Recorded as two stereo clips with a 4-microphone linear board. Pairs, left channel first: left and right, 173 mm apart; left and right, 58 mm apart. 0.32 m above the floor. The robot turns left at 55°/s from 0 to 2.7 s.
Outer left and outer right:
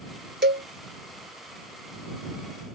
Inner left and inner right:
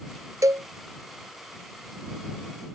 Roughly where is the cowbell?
Right.